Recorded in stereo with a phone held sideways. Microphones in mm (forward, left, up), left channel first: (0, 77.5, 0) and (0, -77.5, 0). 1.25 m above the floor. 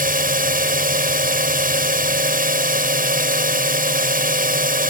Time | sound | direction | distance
0.0 | a drone | 80° right | ?